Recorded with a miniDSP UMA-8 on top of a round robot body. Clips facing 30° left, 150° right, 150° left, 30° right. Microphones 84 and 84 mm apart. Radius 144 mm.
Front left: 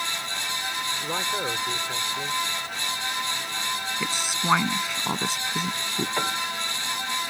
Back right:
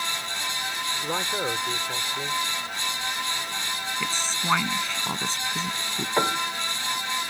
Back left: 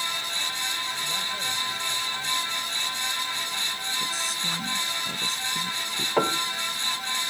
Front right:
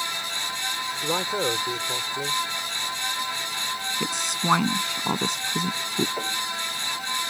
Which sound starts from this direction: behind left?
A piano, at 6.2 s.